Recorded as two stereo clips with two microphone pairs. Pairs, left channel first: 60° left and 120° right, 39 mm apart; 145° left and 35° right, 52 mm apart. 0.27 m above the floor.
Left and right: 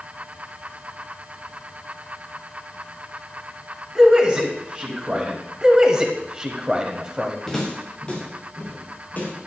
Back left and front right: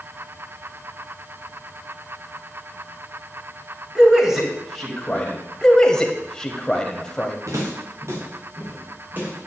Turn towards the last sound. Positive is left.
turn(degrees=15)